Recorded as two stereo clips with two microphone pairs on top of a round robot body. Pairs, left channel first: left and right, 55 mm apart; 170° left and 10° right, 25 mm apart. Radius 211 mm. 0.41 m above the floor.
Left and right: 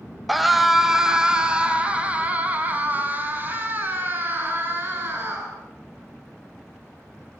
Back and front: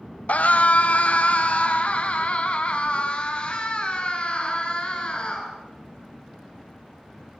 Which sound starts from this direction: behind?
A scream, at 0.3 s.